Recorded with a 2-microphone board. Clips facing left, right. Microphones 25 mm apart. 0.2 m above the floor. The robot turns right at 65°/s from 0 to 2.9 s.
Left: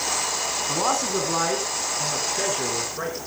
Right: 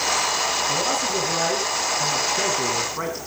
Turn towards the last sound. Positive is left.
turn(degrees=-105)